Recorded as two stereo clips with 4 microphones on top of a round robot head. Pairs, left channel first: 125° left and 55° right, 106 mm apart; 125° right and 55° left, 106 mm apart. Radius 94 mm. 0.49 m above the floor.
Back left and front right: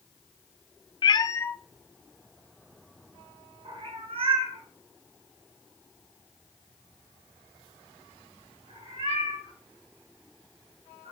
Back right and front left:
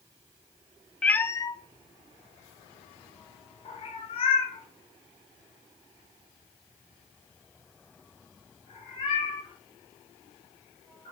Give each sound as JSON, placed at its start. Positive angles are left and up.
{"t": 1.0, "sound": "a cat meowing", "azimuth_deg": 160, "distance_m": 0.6}